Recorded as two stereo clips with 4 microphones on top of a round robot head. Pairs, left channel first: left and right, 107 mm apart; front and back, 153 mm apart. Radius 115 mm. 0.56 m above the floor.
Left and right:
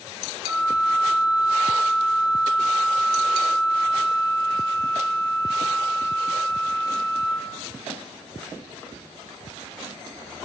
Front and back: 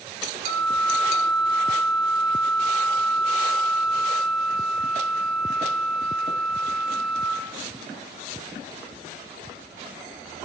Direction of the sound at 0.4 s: 50° right.